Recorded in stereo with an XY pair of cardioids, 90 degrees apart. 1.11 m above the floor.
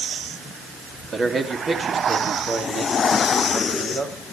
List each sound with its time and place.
1.1 s a man speaking: 40° right, 2.5 m; by 4.2 s 65° right, 4.5 m